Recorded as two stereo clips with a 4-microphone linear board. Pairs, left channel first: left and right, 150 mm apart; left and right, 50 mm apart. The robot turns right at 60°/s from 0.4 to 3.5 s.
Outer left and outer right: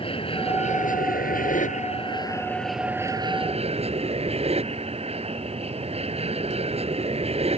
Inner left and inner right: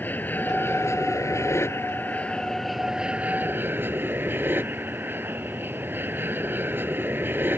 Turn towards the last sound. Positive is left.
turn(degrees=-135)